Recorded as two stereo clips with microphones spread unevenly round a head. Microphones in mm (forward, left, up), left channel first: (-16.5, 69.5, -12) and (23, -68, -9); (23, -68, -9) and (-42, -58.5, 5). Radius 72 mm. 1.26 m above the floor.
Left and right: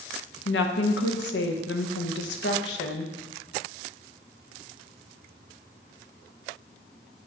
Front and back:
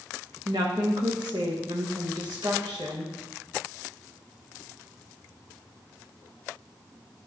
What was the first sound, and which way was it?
A woman speaking, 115° left.